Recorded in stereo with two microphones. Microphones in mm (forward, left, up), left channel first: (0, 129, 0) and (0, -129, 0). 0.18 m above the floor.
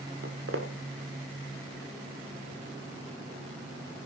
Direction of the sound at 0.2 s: 55° right (ahead or behind).